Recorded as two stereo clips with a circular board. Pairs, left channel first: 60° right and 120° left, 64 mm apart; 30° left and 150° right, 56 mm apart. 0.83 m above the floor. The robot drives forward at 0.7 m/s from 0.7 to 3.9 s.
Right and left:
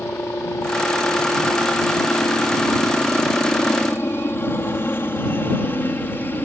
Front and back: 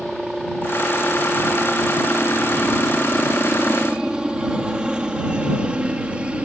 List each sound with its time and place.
0.0 s a helicopter: 60° right; by 6.5 s 90° right